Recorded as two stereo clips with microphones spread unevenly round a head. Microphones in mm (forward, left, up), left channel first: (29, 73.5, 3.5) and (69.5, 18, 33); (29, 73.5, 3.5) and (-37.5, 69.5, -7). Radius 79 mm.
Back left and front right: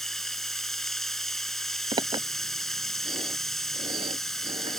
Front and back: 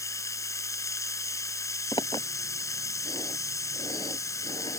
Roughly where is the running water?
Ahead left.